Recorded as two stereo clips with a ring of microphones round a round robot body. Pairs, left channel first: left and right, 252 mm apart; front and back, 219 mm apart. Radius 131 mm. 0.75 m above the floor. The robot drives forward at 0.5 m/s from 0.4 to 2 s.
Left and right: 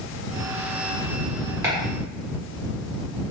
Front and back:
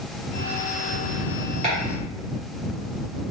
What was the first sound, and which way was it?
Chopping, 160° right.